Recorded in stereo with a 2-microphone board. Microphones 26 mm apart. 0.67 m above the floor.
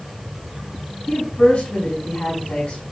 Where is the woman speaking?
75° left (ahead or behind), 5 m.